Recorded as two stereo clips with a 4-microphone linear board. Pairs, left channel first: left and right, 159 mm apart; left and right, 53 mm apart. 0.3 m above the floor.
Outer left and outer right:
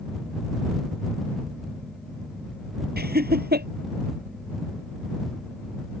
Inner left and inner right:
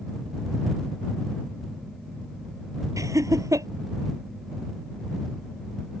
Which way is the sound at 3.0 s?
75° right (ahead or behind).